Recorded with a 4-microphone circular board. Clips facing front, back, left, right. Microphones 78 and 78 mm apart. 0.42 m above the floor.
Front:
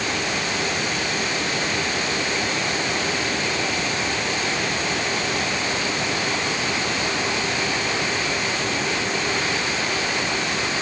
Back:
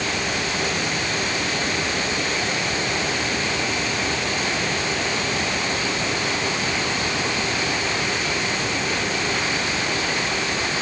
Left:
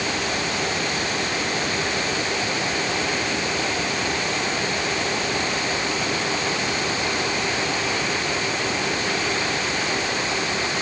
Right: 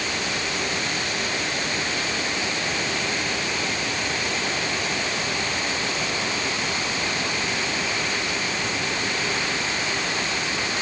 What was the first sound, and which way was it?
Only background noise.